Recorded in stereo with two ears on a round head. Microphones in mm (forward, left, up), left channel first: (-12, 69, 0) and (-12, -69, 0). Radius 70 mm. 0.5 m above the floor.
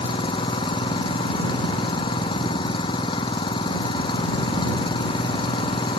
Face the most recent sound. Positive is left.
turn(degrees=35)  # may be behind; listen again after turning